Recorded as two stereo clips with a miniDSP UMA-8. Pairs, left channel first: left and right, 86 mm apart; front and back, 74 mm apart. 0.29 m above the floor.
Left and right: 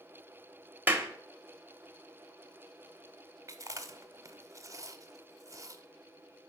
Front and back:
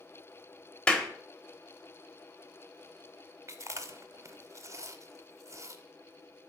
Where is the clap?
60° right, 0.7 m.